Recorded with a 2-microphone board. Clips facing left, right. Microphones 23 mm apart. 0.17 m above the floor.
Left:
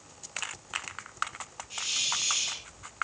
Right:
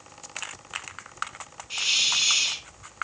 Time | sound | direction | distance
1.7 | a hiss | 45° right (ahead or behind) | 1.6 m